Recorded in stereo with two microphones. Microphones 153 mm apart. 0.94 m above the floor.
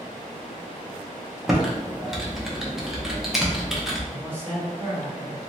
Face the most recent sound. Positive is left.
turn(degrees=-15)  # may be behind; listen again after turning